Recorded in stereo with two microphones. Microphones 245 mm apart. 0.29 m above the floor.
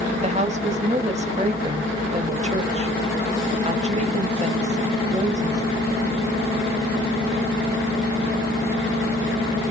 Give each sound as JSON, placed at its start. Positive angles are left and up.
{"t": 0.2, "sound": "a woman speaking", "side_deg": -25, "distance_m": 1.0}